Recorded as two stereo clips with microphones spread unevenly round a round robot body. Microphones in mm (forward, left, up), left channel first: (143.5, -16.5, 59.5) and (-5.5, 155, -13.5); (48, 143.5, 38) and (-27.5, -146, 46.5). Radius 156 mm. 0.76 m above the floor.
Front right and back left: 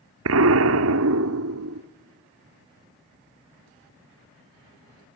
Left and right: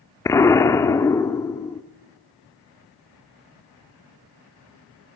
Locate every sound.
0.2 s an explosion: 155° left, 0.9 m